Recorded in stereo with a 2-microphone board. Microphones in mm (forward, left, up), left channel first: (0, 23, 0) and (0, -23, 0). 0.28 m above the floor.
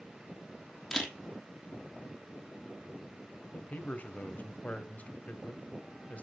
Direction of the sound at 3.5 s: 30° left (ahead or behind).